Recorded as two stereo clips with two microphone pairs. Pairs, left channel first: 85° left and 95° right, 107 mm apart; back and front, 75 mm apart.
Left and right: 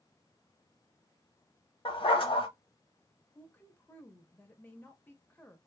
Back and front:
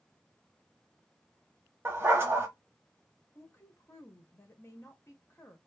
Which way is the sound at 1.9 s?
55° left.